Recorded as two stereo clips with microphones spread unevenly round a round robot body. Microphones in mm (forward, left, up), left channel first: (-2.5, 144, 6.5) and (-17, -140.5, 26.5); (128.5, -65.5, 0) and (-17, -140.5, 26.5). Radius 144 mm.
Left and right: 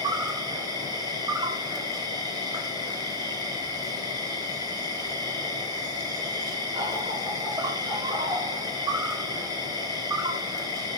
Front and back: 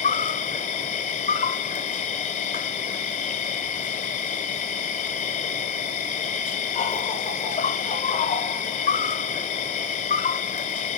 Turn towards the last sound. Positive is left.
turn(degrees=-15)